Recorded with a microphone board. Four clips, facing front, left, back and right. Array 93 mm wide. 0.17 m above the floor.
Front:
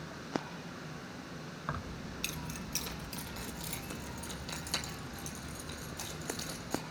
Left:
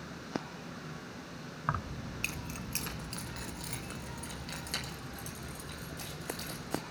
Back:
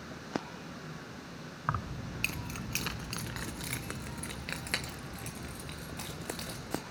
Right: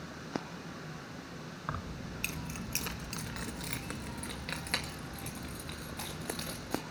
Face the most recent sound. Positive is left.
turn(degrees=-140)